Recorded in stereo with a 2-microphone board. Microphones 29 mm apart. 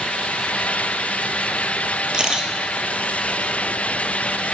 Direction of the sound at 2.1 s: 30° right (ahead or behind).